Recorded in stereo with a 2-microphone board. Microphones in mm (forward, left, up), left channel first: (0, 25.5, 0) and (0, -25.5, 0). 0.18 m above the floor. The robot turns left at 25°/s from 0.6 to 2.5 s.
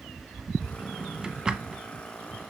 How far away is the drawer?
About 0.5 m.